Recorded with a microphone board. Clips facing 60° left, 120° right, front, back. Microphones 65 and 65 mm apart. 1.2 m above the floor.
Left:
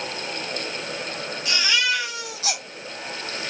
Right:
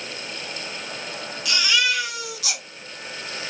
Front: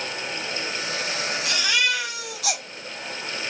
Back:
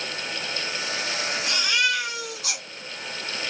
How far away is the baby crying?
About 5 m.